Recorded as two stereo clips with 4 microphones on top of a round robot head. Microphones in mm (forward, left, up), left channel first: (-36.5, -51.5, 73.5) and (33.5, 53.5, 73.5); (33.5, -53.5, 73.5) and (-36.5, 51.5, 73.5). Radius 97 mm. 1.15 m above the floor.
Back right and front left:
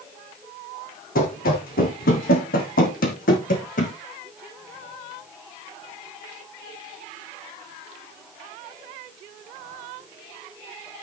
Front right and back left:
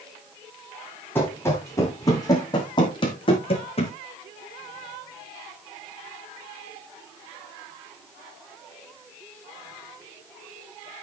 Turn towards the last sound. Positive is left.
turn(degrees=-100)